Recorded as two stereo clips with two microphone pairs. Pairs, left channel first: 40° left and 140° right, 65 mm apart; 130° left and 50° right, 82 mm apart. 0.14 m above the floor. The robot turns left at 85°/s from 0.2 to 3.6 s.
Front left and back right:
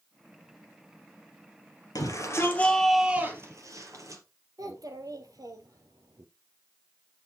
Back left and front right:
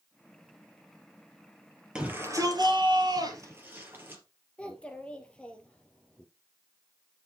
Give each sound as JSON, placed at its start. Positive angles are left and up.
{"t": 1.9, "sound": "a shout", "azimuth_deg": 30, "distance_m": 3.0}
{"t": 4.6, "sound": "a child speaking", "azimuth_deg": -155, "distance_m": 1.6}